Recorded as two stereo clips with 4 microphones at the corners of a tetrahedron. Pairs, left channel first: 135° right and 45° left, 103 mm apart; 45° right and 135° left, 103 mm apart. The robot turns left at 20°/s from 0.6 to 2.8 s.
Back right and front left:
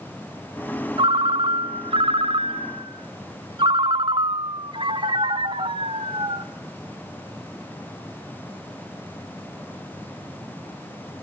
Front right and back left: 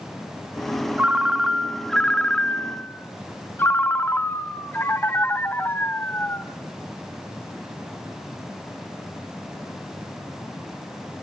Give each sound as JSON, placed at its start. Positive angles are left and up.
{"t": 1.0, "sound": "a ringtone", "azimuth_deg": 60, "distance_m": 0.9}